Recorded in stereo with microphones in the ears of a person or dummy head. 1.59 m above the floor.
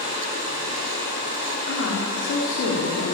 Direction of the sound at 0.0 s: 35° right (ahead or behind).